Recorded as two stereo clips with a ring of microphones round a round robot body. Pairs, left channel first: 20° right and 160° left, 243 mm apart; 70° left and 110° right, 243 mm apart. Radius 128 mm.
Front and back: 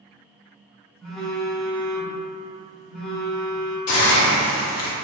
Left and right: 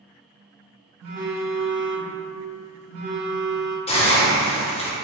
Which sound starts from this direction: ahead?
A hiss, at 3.9 s.